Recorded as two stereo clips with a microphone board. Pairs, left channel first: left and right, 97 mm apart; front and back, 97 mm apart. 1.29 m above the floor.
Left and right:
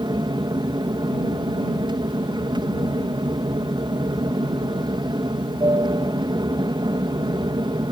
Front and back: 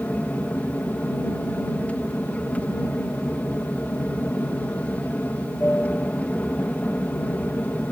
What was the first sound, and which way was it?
An aircraft, 70° right.